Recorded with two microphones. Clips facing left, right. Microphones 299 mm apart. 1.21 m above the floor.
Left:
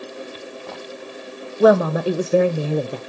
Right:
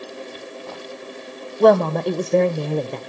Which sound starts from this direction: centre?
A woman speaking, at 1.6 s.